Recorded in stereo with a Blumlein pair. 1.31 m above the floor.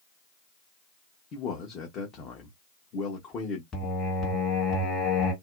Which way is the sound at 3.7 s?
20° left.